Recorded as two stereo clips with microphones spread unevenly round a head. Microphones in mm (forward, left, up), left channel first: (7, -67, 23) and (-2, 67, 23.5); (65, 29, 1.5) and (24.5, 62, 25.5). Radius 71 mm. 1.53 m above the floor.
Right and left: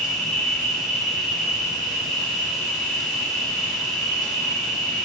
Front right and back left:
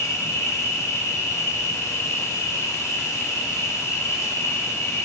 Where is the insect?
Straight ahead, 3 m.